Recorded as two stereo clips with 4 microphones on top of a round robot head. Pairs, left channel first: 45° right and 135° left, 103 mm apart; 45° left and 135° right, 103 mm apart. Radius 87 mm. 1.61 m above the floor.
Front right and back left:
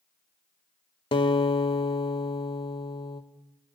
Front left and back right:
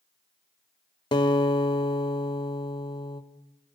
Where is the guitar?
5° right, 0.8 m.